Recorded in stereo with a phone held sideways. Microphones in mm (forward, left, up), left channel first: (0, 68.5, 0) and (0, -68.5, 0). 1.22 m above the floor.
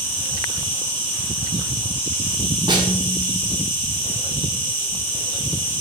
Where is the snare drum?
30° right (ahead or behind), 0.7 m.